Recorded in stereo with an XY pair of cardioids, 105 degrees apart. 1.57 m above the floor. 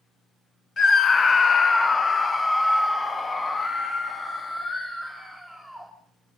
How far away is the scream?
About 0.9 m.